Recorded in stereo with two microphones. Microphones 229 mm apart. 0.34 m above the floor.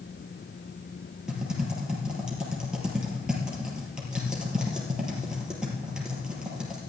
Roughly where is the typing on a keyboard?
Centre.